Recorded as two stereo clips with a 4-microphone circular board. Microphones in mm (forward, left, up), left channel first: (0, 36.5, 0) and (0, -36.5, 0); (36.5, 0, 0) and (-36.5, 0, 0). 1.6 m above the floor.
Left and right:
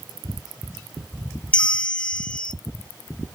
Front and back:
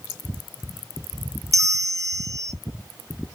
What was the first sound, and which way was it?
A bell, 165° left.